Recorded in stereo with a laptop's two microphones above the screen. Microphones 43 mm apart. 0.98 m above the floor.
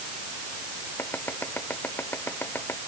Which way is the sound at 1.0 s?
60° left (ahead or behind).